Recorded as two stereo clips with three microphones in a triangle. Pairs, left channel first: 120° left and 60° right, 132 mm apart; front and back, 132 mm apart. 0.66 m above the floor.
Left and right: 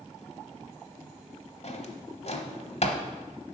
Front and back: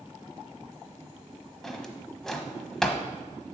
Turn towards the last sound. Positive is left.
turn(degrees=85)